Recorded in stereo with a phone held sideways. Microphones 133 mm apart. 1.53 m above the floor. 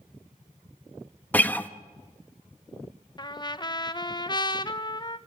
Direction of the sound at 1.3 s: 10° left (ahead or behind).